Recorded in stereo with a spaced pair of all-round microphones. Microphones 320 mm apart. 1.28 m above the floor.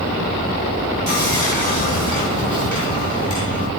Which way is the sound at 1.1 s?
65° right (ahead or behind).